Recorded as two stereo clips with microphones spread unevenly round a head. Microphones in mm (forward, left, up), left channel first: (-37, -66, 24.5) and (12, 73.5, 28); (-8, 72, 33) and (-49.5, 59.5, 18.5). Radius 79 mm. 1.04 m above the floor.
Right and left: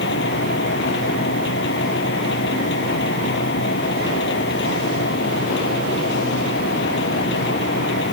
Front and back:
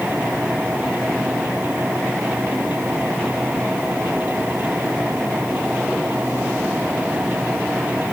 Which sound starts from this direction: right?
A machine running, at 0.0 s.